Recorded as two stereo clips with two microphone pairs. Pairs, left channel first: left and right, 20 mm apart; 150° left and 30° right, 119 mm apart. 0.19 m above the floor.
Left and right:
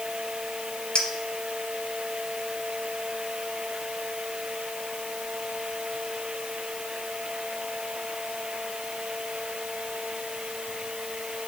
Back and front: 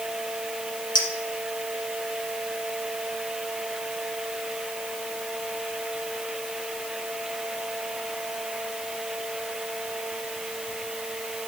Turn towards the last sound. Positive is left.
turn(degrees=115)